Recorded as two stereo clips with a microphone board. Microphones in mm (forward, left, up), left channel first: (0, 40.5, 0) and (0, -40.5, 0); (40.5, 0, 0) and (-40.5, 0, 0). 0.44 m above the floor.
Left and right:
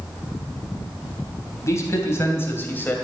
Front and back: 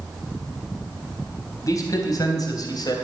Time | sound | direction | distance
1.6 | a man speaking | 40° left | 3 m